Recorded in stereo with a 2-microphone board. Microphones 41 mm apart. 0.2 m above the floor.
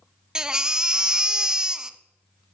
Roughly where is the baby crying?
Centre.